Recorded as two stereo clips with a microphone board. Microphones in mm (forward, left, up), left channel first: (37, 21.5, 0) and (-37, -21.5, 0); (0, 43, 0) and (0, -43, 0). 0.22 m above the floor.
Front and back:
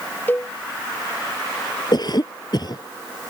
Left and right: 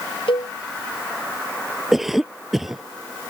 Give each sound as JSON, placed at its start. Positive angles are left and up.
{"t": 0.3, "sound": "a cowbell", "azimuth_deg": 95}
{"t": 1.9, "sound": "a cough", "azimuth_deg": -5}